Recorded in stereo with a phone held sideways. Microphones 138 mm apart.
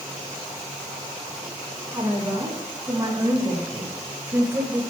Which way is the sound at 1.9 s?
25° right (ahead or behind).